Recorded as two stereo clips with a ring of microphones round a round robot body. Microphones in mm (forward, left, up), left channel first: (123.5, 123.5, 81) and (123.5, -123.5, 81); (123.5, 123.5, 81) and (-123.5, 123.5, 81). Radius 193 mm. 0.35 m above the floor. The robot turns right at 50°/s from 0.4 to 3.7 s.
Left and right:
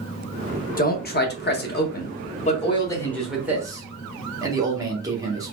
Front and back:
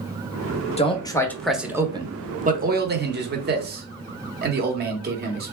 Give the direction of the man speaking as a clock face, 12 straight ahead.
10 o'clock.